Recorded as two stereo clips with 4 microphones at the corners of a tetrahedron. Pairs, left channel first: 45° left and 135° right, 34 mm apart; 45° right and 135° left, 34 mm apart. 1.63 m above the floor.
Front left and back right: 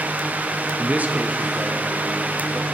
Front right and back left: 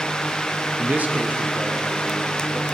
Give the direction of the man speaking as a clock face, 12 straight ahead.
6 o'clock.